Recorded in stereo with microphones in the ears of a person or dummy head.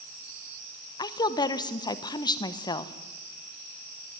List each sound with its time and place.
1.0 s a woman speaking: 20° left (ahead or behind), 1.0 m